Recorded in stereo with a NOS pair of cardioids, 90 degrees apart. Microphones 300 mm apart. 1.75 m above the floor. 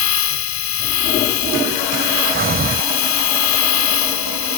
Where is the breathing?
30° right.